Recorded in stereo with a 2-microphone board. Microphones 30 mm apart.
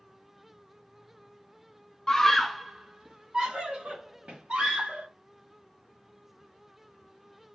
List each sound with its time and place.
2.1 s a scream: 20° left (ahead or behind), 0.6 m; by 5.1 s 40° right (ahead or behind), 1.7 m